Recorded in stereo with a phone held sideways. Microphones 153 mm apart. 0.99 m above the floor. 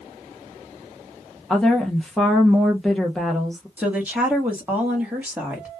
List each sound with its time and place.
1.5 s a woman speaking: 5° left (ahead or behind), 0.6 m
3.8 s a woman speaking: 10° right (ahead or behind), 1.0 m